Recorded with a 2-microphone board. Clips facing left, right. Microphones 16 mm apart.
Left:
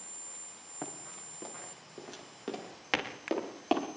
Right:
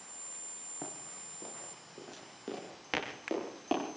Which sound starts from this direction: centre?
Running footsteps, at 0.8 s.